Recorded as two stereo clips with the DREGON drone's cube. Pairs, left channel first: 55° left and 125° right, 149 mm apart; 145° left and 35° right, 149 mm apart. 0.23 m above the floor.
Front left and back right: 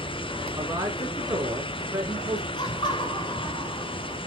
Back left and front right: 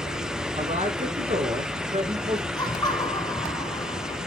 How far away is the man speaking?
About 2.5 m.